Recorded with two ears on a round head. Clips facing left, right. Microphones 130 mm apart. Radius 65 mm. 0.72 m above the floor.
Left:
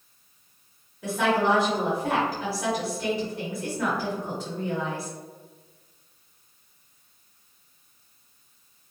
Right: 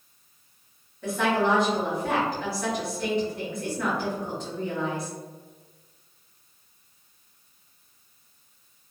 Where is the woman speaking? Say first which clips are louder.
Left 1 dB; 5° left (ahead or behind), 1.3 m.